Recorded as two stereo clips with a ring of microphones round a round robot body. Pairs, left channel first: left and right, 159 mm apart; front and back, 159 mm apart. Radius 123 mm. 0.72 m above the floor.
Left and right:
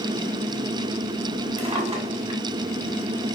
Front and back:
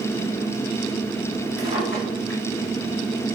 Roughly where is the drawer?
Ahead right.